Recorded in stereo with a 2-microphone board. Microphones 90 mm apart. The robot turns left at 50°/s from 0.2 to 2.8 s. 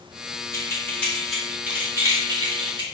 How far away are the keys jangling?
About 1.5 m.